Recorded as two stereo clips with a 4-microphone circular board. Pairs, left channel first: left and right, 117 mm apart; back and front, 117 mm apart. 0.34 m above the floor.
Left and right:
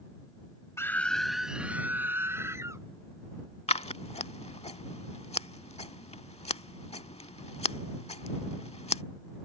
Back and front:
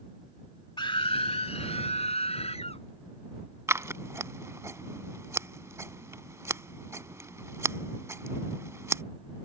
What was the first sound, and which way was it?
A scream, 150° left.